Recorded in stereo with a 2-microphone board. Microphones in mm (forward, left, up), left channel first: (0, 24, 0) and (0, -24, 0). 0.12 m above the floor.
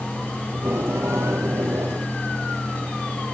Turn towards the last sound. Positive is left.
turn(degrees=-75)  # may be behind; listen again after turning